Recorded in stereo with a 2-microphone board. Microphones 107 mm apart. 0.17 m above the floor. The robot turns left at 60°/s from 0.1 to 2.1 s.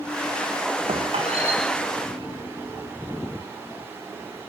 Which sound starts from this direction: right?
A squeak, at 0.9 s.